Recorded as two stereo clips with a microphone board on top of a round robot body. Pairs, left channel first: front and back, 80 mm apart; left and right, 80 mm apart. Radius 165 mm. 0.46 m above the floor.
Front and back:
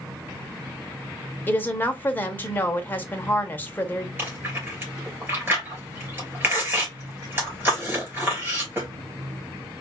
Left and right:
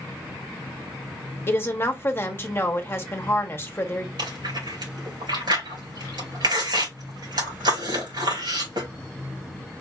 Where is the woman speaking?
50° left, 1.2 m.